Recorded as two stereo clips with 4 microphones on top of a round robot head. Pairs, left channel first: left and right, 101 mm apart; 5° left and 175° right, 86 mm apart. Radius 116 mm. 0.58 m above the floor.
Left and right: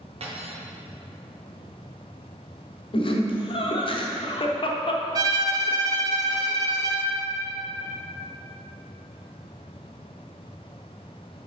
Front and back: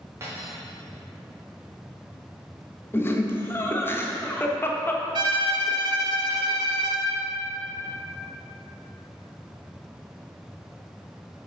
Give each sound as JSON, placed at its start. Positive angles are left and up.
{"t": 0.2, "sound": "cutlery clinking", "azimuth_deg": -115, "distance_m": 0.9}
{"t": 2.9, "sound": "laughter", "azimuth_deg": 70, "distance_m": 1.2}
{"t": 5.2, "sound": "a violin", "azimuth_deg": -140, "distance_m": 0.6}